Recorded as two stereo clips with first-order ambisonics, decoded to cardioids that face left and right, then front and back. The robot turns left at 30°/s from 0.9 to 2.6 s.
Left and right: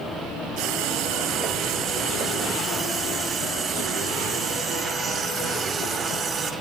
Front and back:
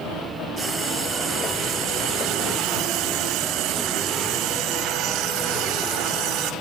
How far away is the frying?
About 2.5 m.